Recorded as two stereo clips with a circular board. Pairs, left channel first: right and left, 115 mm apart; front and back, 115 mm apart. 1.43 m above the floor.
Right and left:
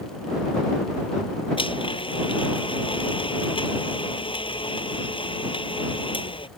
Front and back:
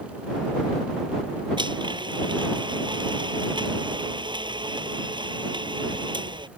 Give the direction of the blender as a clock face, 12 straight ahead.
4 o'clock.